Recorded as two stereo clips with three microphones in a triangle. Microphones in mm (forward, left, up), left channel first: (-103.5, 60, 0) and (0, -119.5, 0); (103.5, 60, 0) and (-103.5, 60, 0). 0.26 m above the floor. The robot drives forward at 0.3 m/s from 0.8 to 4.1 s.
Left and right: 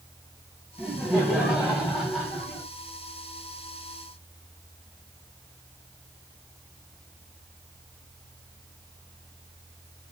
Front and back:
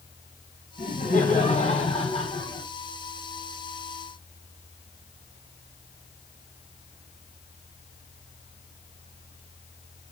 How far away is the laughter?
About 2.0 m.